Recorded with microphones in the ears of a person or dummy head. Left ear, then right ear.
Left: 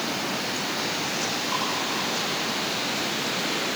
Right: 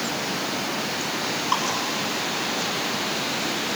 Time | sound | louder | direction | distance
1.5 | dripping | right 5 dB | 50° right (ahead or behind) | 7 m